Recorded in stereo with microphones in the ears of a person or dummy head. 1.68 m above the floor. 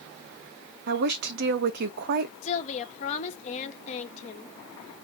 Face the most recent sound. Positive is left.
turn(degrees=40)  # may be behind; listen again after turning